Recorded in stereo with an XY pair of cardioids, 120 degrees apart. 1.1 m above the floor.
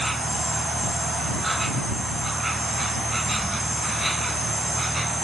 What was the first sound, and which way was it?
An insect, 10° right.